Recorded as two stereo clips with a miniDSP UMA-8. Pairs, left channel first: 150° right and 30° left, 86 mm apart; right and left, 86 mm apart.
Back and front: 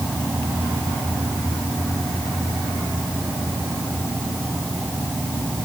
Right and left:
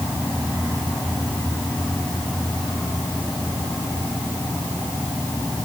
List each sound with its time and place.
Only background noise.